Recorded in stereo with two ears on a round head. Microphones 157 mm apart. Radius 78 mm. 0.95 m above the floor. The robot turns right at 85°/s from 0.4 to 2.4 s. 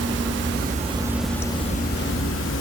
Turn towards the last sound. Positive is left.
turn(degrees=100)